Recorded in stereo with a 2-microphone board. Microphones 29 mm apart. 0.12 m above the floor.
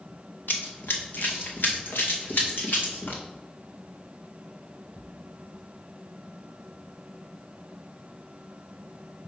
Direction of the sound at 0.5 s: 75° left (ahead or behind).